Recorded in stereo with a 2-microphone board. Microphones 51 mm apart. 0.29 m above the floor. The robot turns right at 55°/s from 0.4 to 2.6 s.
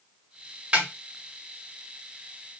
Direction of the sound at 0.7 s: 25° right (ahead or behind).